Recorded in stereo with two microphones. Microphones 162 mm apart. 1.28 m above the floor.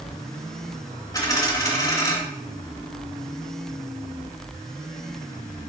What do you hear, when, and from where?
1.1 s a dropped coin: 25° left (ahead or behind), 2 m